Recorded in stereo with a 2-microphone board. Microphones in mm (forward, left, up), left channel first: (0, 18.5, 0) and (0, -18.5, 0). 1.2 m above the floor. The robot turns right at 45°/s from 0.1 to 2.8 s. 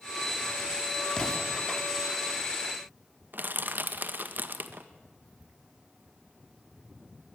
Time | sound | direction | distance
1.2 | an explosion | 20° left (ahead or behind) | 3.5 m
3.3 | crushing | 55° right (ahead or behind) | 1.6 m